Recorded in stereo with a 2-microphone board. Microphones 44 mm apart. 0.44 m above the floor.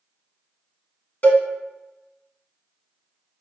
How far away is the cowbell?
About 0.7 m.